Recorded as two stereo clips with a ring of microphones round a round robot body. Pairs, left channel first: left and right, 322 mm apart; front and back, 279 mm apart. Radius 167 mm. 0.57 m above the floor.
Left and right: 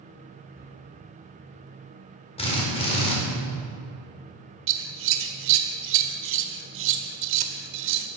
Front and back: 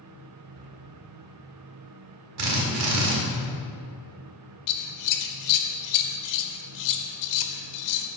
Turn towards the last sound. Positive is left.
turn(degrees=-35)